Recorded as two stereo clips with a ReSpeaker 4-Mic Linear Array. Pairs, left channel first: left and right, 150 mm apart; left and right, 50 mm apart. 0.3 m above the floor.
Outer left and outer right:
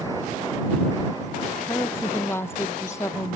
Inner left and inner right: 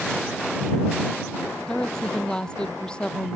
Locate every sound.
1.7 s a woman speaking: 10° left (ahead or behind); by 3.4 s 20° left (ahead or behind)